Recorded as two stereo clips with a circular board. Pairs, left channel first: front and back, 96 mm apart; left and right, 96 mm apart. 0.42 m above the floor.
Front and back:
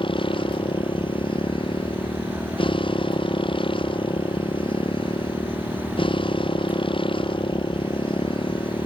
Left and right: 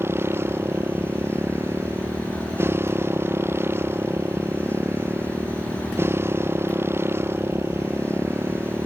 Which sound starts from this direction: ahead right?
A motorcycle, at 0.0 s.